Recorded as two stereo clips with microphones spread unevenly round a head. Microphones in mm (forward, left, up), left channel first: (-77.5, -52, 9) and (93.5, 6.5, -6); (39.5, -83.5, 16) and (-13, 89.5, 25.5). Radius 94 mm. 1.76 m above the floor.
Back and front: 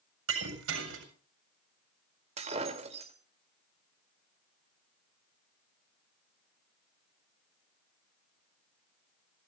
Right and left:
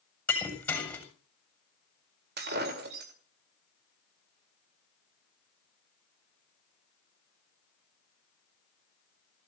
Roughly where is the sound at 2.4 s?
Left.